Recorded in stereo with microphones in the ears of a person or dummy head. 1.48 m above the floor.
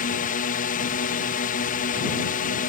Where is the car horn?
No car horn in this recording.